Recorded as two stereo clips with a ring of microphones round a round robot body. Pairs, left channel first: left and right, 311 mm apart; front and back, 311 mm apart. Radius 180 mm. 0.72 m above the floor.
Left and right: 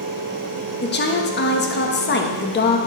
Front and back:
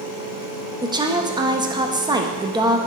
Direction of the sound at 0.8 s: 110° left.